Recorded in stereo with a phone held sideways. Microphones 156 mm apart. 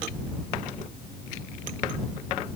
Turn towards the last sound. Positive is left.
No sound to turn to.